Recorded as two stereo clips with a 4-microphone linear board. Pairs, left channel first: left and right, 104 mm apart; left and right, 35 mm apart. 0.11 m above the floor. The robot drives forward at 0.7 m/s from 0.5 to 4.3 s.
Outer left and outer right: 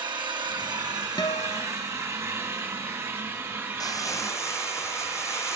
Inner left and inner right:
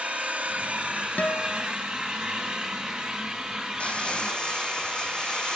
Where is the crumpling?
40° left (ahead or behind), 0.9 m; by 5.6 s 25° left (ahead or behind), 1.2 m.